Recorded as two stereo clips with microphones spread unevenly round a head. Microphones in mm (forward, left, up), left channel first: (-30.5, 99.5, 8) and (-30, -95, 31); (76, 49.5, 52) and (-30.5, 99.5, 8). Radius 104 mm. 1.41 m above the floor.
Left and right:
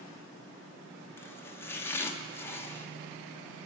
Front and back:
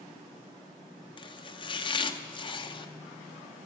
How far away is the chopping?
About 0.9 m.